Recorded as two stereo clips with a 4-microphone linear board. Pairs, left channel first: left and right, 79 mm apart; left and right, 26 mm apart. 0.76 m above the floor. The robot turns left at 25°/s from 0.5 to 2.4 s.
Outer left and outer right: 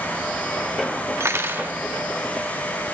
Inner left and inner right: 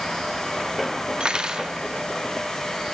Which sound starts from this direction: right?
Cutlery clinking, at 1.2 s.